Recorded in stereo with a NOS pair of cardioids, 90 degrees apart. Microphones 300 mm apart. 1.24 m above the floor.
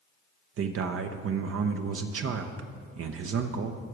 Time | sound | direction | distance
0.6 | a man speaking | 50° right | 0.7 m